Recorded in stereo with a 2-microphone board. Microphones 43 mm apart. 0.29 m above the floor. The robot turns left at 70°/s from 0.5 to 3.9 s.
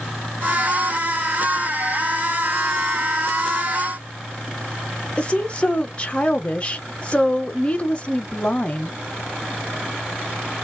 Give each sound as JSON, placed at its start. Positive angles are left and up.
{"t": 5.2, "sound": "a woman speaking", "side_deg": 25, "distance_m": 1.1}